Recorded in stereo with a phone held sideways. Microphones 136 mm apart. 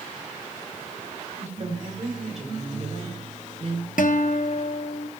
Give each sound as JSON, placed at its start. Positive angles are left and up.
{"t": 1.4, "sound": "a woman speaking", "side_deg": -55, "distance_m": 3.0}
{"t": 4.0, "sound": "a guitar", "side_deg": 75, "distance_m": 0.7}